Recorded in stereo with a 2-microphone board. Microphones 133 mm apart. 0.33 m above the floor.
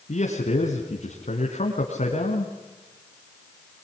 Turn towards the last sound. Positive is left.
turn(degrees=65)  # may be behind; listen again after turning